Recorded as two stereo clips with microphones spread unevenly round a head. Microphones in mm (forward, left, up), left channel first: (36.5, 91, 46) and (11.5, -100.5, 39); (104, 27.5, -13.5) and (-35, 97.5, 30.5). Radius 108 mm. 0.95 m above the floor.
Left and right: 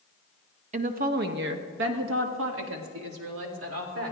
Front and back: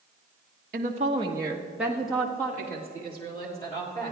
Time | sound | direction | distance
0.7 | a woman speaking | 150° right | 0.9 m